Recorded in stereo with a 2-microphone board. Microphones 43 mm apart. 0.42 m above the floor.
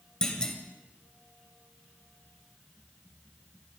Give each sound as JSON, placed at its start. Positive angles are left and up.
{"t": 0.2, "sound": "a clunk", "side_deg": 20, "distance_m": 2.5}